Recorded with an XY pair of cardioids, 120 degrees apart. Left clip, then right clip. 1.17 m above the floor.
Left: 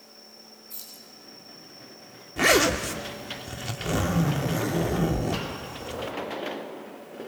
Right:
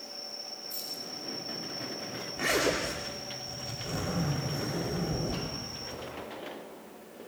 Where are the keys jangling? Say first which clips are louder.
Right 4 dB; 5° left, 9 m.